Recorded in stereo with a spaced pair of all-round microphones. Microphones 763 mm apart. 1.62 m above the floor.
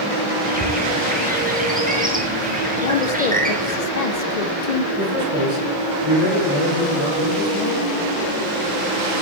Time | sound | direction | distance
0.5 | a bird | 10° right (ahead or behind) | 0.9 m
2.8 | a woman speaking | 60° left (ahead or behind) | 0.7 m
4.9 | a man speaking | 35° right (ahead or behind) | 3.5 m